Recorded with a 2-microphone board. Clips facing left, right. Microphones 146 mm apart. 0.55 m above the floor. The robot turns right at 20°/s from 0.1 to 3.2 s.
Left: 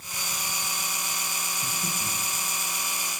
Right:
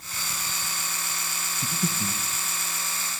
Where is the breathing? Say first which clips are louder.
Right 8 dB; 75° right (ahead or behind), 1.7 m; by 2.2 s 60° right (ahead or behind), 1.7 m.